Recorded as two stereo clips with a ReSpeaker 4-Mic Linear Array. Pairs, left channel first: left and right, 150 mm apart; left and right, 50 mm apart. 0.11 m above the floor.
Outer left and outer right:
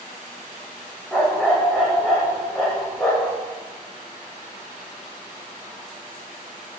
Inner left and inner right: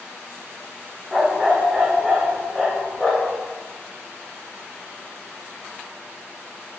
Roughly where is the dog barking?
Centre.